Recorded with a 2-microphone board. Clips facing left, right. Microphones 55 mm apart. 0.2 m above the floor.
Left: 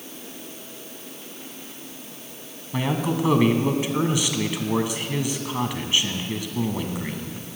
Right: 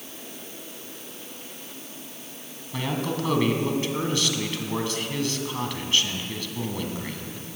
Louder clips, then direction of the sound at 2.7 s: Left 4 dB; 15° left (ahead or behind).